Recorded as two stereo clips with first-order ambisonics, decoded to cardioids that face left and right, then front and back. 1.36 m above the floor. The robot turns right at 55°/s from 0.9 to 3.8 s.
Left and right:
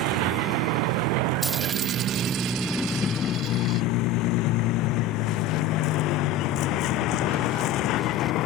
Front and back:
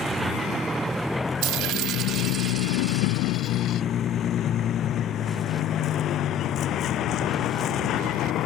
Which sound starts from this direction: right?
A vehicle, at 0.0 s.